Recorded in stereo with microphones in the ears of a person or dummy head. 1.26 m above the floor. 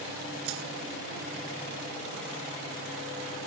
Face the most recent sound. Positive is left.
turn(degrees=-75)  # may be behind; listen again after turning